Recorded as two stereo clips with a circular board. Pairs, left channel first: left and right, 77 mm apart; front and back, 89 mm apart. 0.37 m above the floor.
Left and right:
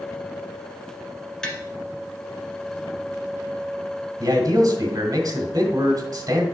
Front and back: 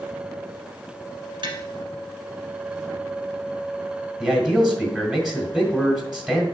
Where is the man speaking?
100° right, 1.7 m.